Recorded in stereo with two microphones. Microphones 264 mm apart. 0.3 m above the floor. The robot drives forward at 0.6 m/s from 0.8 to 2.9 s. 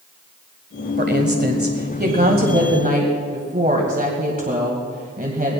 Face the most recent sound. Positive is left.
turn(degrees=-35)  # may be behind; listen again after turning